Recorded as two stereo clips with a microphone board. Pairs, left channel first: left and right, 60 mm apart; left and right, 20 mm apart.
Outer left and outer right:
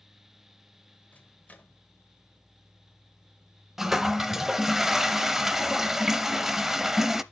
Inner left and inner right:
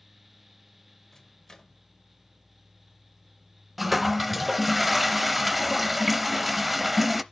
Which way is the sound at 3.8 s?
5° right (ahead or behind).